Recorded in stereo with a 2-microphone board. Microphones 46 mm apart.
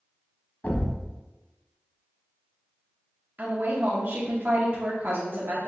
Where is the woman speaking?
45° right (ahead or behind), 0.8 m.